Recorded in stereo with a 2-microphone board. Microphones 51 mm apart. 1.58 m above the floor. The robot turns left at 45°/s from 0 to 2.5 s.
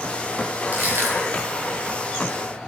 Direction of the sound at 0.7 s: 40° right (ahead or behind).